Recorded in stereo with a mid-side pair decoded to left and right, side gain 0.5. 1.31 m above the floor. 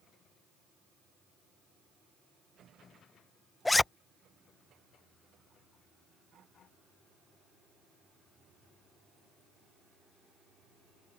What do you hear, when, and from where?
3.6 s a zipper: 15° left